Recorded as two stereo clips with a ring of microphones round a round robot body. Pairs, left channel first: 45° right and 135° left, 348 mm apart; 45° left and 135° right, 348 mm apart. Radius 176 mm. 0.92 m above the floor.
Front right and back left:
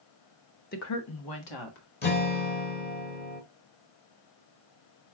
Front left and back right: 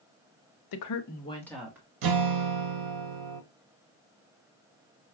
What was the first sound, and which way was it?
A woman speaking, 20° left.